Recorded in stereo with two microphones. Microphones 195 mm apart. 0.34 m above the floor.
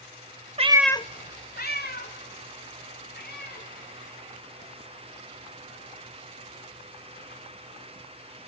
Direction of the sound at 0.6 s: 35° right (ahead or behind).